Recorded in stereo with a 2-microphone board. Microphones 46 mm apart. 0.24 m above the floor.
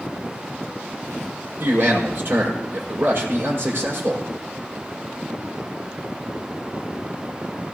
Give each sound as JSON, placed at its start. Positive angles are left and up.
{"t": 1.6, "sound": "a man speaking", "side_deg": -50, "distance_m": 7.5}